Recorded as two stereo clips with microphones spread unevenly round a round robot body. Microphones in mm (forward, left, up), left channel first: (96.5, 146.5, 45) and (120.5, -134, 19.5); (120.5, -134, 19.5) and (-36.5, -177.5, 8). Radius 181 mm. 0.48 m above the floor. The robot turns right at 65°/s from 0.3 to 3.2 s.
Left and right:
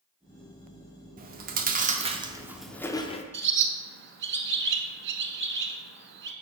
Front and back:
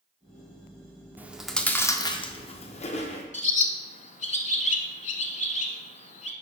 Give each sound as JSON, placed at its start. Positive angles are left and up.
{"t": 1.2, "sound": "chewing", "azimuth_deg": -100, "distance_m": 0.7}
{"t": 3.3, "sound": "a bird", "azimuth_deg": -30, "distance_m": 0.9}